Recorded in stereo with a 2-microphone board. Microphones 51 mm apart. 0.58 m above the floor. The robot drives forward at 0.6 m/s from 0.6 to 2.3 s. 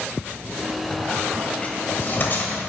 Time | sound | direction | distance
0.9 | a squeak | 30° left (ahead or behind) | 2.5 m